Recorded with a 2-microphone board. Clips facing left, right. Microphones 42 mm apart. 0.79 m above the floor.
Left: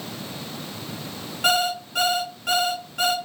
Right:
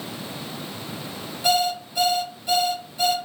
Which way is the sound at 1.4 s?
80° left.